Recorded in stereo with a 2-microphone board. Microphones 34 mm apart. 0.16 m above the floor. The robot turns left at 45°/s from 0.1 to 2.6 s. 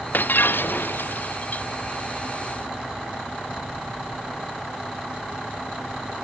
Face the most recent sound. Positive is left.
turn(degrees=5)